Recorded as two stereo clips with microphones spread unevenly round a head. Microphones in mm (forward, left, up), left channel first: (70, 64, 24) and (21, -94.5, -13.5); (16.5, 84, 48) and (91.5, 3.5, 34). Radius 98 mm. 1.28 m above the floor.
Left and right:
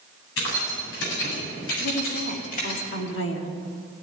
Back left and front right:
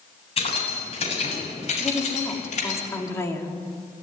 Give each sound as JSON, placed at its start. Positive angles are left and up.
{"t": 0.4, "sound": "keys jangling", "azimuth_deg": 100, "distance_m": 8.0}
{"t": 1.8, "sound": "a woman speaking", "azimuth_deg": 70, "distance_m": 3.0}